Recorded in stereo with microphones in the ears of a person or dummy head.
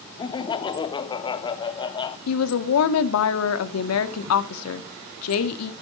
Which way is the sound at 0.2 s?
25° left (ahead or behind).